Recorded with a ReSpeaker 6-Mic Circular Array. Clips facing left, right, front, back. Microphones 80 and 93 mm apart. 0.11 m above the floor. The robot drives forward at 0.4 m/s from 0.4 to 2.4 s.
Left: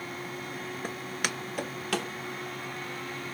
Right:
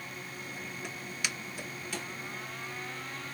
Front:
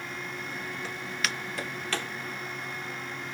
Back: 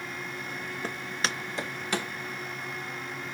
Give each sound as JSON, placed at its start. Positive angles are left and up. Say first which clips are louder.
{"t": 0.8, "sound": "footsteps", "louder": "left 5 dB, back 3 dB", "azimuth_deg": 135, "distance_m": 0.7}